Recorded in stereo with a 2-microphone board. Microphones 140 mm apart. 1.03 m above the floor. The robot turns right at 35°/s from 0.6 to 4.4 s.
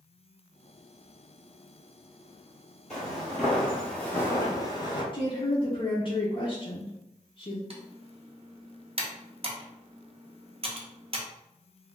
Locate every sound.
2.9 s footsteps: 5° left (ahead or behind), 1.2 m; by 5.0 s 35° left (ahead or behind), 1.2 m
5.1 s a woman speaking: 40° left (ahead or behind), 0.5 m
7.7 s typing on a keyboard: 45° right (ahead or behind), 0.5 m